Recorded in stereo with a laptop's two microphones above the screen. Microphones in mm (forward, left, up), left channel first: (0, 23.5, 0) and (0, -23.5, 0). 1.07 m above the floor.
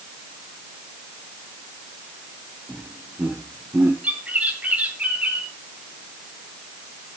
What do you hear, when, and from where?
2.7 s laughter: 35° right (ahead or behind), 1.5 m; by 3.9 s 40° right (ahead or behind), 0.8 m
4.0 s a bird: 30° right (ahead or behind), 2.5 m